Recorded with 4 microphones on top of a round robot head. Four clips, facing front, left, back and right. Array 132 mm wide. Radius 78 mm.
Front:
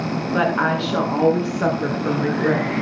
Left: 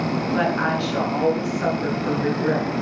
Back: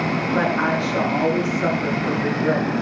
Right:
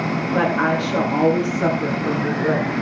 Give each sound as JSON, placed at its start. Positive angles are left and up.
{"t": 0.3, "sound": "a woman speaking", "azimuth_deg": -20, "distance_m": 7.5}